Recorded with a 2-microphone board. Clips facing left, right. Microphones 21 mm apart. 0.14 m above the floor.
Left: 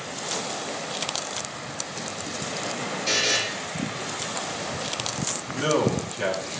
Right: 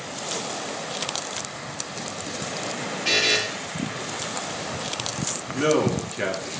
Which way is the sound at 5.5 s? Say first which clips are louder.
Right 2 dB; 50° right (ahead or behind).